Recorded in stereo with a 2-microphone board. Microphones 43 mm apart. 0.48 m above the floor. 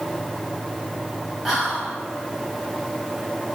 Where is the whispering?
10° right (ahead or behind), 1.3 m.